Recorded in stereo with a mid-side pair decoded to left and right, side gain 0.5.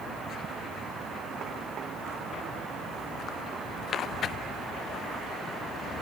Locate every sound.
Only background noise.